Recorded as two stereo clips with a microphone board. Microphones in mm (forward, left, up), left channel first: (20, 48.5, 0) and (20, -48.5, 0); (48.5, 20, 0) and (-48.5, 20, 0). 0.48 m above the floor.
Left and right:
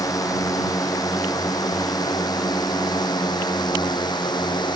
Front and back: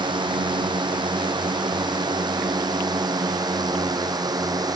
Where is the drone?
145° left; by 4.8 s 130° left.